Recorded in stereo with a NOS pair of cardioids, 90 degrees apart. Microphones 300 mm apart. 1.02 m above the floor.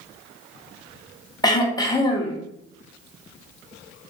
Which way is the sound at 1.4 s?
15° left.